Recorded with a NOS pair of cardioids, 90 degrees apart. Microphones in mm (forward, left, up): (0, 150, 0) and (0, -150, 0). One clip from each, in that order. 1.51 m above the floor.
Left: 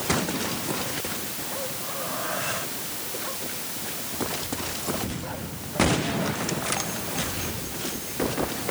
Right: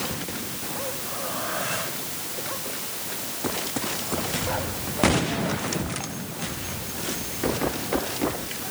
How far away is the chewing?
No chewing in this recording.